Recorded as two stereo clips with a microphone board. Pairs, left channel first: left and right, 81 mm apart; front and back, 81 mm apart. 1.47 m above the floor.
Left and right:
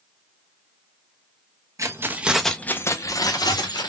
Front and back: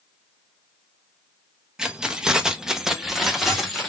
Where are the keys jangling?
105° right, 0.6 m; by 3.9 s 90° left, 1.1 m.